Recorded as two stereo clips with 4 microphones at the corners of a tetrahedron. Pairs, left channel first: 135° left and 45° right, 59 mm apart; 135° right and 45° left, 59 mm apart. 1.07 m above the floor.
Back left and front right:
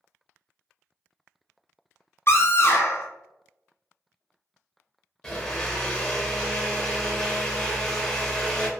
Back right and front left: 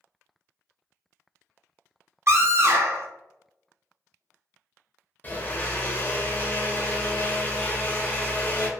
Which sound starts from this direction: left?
A scream, at 2.3 s.